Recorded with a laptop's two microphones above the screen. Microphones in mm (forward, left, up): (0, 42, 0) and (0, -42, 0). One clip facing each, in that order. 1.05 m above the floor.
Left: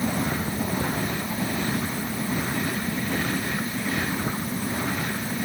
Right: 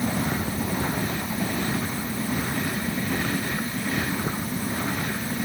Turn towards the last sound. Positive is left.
No sound to turn to.